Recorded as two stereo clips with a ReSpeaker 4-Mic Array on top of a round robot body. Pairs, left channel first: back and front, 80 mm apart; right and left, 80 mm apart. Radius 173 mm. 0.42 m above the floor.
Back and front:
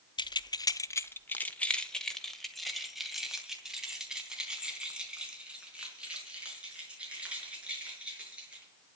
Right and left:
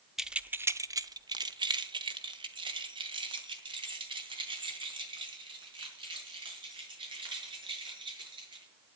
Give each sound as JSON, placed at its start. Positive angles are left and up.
{"t": 0.2, "sound": "keys jangling", "azimuth_deg": 175, "distance_m": 0.8}